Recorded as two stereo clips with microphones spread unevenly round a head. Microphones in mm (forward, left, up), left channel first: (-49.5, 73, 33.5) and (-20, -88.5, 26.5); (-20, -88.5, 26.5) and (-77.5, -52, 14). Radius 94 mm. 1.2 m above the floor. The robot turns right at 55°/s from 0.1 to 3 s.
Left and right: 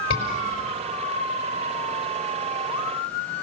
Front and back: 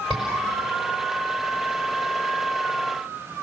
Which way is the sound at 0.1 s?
60° left.